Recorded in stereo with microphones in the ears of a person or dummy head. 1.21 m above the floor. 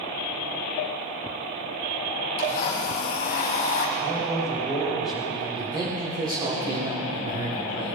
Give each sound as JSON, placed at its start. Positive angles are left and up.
{"t": 2.4, "sound": "a blender", "side_deg": 45, "distance_m": 1.4}
{"t": 4.0, "sound": "a man speaking", "side_deg": -5, "distance_m": 6.0}
{"t": 5.3, "sound": "a man speaking", "side_deg": -15, "distance_m": 2.5}